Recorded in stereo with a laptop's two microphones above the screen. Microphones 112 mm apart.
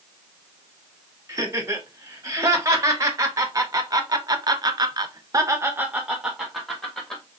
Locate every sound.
1.3 s laughter: 25° right (ahead or behind), 2 m; by 7.2 s 5° left (ahead or behind), 1.1 m